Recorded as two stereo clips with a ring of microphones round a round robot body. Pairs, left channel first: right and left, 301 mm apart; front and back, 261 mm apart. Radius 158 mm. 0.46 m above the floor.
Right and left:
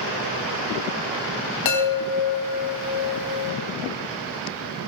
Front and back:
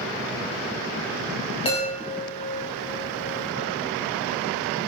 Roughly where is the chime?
Right.